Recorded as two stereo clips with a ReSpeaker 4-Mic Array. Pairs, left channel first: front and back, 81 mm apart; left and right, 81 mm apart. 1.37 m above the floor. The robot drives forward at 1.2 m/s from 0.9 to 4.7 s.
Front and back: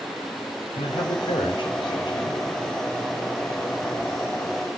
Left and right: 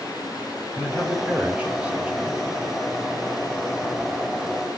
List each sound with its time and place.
0.8 s a man speaking: 15° right, 5 m; by 2.4 s 20° right, 3.5 m